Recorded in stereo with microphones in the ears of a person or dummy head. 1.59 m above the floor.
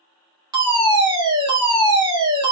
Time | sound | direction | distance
0.5 | a fire alarm | 25° right (ahead or behind) | 1.8 m